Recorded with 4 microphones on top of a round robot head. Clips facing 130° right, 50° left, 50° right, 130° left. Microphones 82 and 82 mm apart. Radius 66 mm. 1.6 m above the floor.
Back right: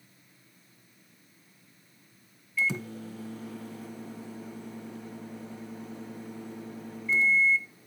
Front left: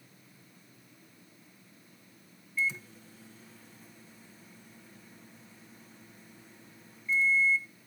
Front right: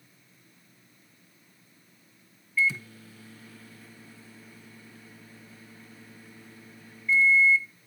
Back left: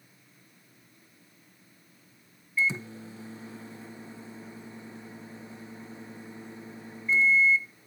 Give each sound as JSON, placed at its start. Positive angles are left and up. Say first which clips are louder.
{"t": 2.6, "sound": "a microwave", "louder": "back right 4 dB, front right 1 dB", "azimuth_deg": -160}